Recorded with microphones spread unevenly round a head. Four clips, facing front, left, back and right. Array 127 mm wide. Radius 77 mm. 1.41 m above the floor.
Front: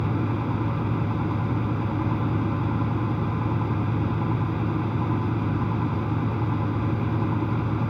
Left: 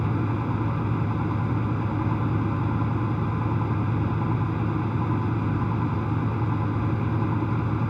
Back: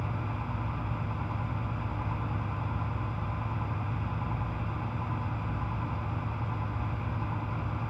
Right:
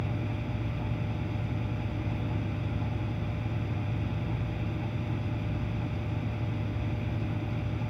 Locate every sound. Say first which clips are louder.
0.0 s a fan: left 8 dB, front 10 dB; 35° left